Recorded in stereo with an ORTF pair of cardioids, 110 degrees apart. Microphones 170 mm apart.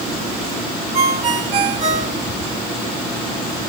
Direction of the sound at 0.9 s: 40° right.